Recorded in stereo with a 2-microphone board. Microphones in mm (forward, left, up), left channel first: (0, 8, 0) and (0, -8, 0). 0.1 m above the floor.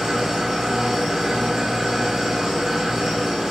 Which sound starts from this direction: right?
An engine running, at 0.0 s.